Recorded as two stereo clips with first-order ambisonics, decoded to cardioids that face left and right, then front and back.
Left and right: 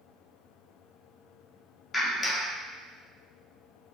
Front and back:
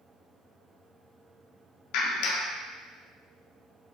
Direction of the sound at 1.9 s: 15° left.